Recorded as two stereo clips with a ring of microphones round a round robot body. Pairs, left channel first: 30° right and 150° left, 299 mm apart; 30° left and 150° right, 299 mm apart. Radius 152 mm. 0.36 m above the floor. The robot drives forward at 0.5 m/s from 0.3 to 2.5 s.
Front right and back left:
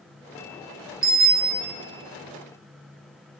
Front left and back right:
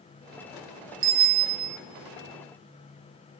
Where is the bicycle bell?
150° right, 4 m.